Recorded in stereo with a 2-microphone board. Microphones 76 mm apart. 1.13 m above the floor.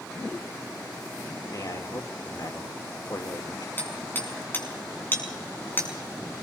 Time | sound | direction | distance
1.5 | a man speaking | 60° left (ahead or behind) | 2.5 m
3.8 | hammering | 25° left (ahead or behind) | 7 m